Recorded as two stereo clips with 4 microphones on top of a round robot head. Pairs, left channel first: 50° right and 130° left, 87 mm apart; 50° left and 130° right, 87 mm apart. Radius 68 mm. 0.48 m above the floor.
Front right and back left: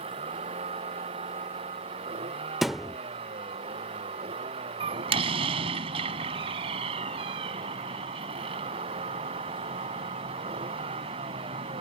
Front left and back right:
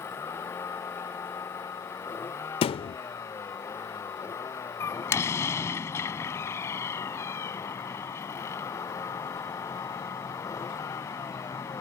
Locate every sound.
0.0 s a vehicle: 115° left; by 11.8 s 110° left
2.6 s a thud: 40° left
4.8 s a door slam: 110° left